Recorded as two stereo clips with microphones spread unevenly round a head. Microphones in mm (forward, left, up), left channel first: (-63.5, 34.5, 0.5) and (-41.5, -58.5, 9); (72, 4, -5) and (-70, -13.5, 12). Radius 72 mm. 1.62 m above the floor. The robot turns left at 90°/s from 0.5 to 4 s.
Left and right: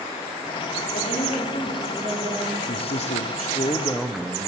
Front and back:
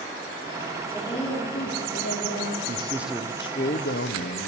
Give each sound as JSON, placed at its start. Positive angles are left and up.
{"t": 0.9, "sound": "a woman speaking", "azimuth_deg": 85, "distance_m": 5.0}
{"t": 2.7, "sound": "a man speaking", "azimuth_deg": 135, "distance_m": 1.2}